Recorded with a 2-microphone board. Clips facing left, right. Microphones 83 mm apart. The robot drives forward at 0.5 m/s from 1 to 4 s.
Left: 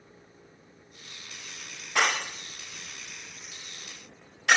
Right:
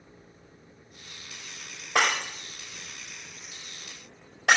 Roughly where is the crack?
No crack in this recording.